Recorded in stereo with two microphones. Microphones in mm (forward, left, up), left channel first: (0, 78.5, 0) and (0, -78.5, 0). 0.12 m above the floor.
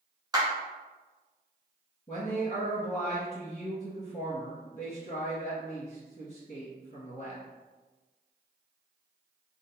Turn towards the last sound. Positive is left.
turn(degrees=40)  # may be behind; listen again after turning